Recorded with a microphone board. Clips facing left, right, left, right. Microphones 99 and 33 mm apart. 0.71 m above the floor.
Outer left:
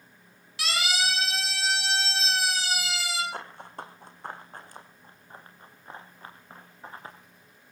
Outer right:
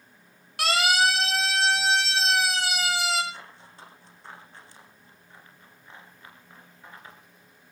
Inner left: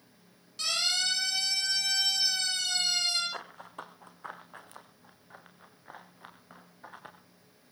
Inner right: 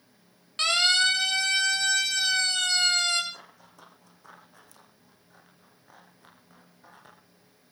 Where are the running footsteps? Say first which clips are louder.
Outer left 7 dB, inner left 7 dB; 60° left (ahead or behind), 3 m; by 7.2 s 35° left (ahead or behind), 4.5 m.